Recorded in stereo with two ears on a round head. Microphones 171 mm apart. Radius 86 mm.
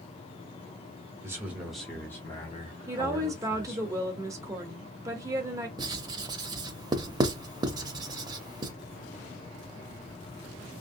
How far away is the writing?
About 0.6 m.